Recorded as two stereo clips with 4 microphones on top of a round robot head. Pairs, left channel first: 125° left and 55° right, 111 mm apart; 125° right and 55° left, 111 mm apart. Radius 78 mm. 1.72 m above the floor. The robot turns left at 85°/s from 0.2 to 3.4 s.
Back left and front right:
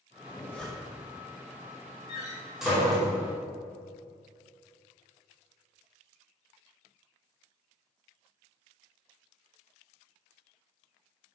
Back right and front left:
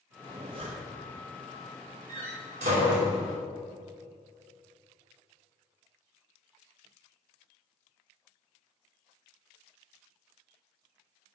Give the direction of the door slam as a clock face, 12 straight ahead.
9 o'clock.